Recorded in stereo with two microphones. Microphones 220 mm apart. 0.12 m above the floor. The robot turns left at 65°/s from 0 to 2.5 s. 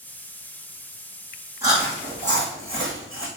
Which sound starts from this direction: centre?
Chewing, at 1.6 s.